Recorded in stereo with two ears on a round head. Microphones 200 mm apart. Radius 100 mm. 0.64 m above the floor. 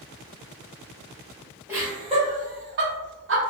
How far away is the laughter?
About 0.8 m.